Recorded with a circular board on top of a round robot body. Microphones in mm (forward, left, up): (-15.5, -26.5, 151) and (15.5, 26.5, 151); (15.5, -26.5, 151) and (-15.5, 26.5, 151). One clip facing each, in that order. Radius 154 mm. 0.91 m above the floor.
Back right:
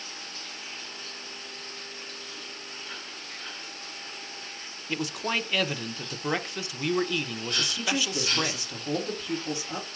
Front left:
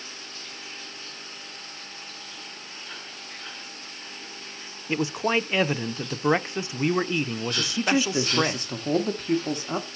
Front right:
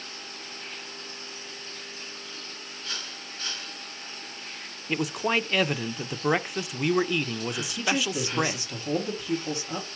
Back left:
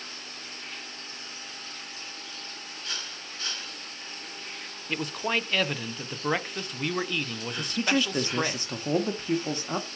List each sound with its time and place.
4.9 s a man speaking: 15° left, 0.5 m
7.6 s a man speaking: 85° left, 0.9 m